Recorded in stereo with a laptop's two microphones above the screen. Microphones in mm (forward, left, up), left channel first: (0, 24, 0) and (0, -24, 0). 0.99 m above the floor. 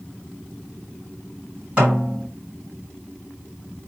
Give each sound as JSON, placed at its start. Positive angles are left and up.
{"t": 1.8, "sound": "a snare drum", "side_deg": -25, "distance_m": 4.0}